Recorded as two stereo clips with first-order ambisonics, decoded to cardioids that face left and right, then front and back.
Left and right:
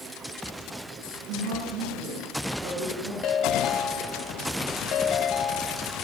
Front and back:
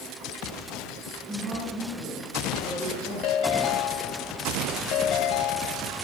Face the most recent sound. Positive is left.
turn(degrees=35)